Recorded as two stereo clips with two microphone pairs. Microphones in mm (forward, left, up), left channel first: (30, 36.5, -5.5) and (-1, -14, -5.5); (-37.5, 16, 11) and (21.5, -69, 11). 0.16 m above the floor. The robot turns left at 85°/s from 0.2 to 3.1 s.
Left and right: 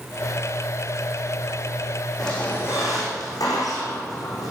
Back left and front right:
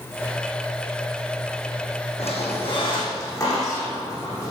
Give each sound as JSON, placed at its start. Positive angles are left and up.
{"t": 2.2, "sound": "a squeak", "azimuth_deg": 145, "distance_m": 5.5}